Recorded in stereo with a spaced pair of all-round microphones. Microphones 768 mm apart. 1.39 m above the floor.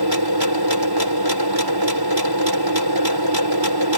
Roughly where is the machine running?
Right.